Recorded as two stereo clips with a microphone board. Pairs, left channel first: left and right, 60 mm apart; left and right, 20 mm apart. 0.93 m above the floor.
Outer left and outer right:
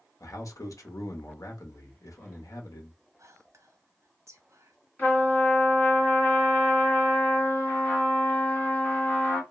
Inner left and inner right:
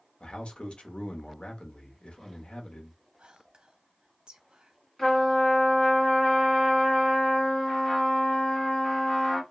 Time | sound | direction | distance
0.2 | a man speaking | 65° left (ahead or behind) | 0.8 m
3.2 | whispering | 55° right (ahead or behind) | 0.8 m
5.0 | a trumpet | 30° left (ahead or behind) | 1.5 m